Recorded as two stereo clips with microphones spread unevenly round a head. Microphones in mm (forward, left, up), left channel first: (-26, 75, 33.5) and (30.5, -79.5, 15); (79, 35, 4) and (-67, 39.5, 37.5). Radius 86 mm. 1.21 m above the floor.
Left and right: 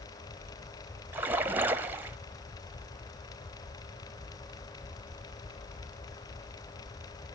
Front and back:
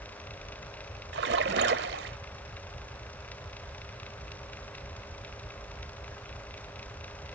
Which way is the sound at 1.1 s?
150° right.